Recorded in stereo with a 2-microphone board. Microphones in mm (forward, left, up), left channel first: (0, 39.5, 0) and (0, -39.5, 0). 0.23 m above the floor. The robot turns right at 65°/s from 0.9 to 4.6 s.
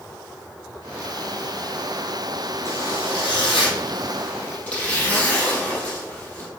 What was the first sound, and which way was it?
A zipper, 35° left.